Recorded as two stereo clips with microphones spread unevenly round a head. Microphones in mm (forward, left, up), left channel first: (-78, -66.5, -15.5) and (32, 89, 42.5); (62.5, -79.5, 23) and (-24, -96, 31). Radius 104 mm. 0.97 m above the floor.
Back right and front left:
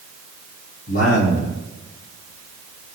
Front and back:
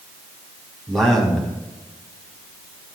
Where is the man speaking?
75° right, 6 m; by 3.0 s 50° right, 4 m.